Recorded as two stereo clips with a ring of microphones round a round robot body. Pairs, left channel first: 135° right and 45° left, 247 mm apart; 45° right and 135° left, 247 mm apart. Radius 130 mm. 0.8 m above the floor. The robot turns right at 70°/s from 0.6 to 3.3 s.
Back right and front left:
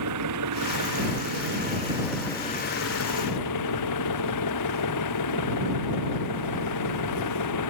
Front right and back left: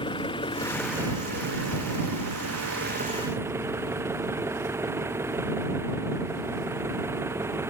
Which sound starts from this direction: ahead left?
An engine running, at 0.0 s.